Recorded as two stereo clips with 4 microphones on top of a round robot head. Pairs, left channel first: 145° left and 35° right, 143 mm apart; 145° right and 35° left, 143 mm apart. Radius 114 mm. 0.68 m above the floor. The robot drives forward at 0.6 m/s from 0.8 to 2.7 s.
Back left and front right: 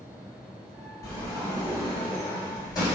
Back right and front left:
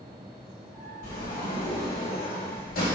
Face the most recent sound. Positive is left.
turn(degrees=-155)